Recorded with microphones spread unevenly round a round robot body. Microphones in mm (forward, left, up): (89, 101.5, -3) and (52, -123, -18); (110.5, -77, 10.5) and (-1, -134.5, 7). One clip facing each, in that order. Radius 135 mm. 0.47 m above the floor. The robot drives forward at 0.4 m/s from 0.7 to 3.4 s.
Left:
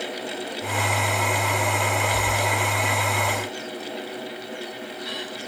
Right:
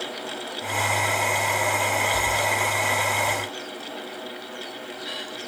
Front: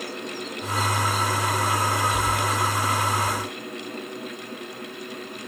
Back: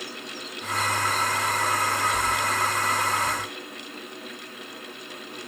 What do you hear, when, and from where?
Only background noise.